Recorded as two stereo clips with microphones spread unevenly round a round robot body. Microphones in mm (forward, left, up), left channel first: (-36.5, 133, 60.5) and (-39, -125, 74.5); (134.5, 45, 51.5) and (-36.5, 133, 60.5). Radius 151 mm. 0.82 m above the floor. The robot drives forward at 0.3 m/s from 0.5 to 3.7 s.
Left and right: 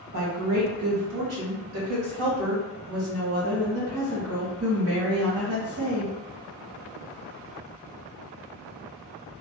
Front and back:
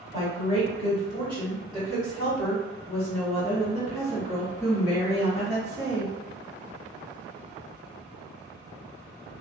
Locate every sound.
0.1 s a woman speaking: 85° right, 1.7 m; by 6.1 s 120° right, 1.8 m